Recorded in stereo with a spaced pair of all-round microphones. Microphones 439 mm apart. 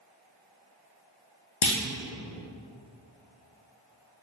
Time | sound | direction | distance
1.6 | a clunk | 85° left | 0.6 m